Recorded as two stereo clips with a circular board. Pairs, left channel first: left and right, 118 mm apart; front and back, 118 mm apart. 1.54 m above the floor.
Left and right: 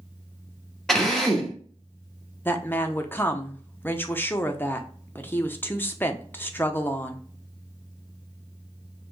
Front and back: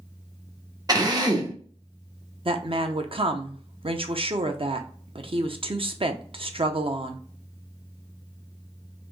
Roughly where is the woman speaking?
Behind.